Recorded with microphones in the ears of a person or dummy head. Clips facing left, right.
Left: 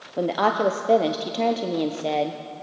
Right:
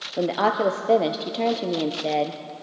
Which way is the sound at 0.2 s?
Centre (ahead or behind).